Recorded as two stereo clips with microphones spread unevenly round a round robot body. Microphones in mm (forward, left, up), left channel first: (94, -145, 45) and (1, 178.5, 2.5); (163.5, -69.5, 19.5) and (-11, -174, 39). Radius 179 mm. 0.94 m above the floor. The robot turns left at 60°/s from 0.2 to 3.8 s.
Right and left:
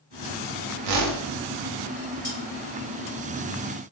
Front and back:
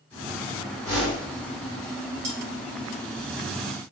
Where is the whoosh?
90° left, 0.6 m; by 1.3 s 60° left, 0.6 m.